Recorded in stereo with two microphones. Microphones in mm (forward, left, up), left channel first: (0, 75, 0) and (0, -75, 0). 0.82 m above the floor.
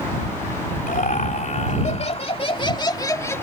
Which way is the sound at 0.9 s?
60° left (ahead or behind).